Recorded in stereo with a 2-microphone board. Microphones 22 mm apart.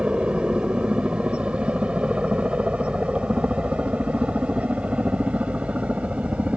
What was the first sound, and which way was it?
A helicopter, 45° right (ahead or behind).